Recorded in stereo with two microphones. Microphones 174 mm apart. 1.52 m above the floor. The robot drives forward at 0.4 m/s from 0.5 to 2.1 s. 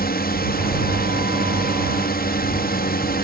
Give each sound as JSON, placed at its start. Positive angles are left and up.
{"t": 0.0, "sound": "a drone", "side_deg": 65}